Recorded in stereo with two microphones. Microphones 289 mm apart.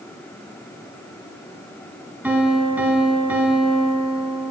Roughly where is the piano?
Centre.